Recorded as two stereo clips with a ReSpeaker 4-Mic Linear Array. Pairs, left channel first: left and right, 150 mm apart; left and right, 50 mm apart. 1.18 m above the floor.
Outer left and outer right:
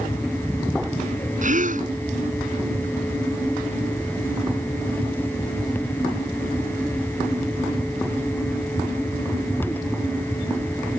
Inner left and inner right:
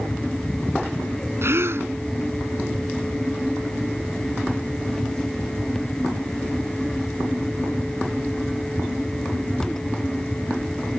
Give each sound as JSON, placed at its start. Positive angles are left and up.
{"t": 1.4, "sound": "a gasp", "side_deg": -60}